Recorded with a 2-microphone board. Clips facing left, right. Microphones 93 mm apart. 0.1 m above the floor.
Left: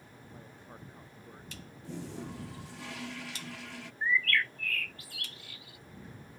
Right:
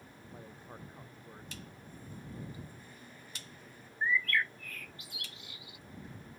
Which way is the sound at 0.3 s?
15° right (ahead or behind).